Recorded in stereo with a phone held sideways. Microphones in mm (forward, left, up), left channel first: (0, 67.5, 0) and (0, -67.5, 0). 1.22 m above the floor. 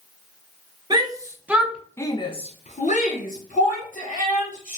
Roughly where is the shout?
Right.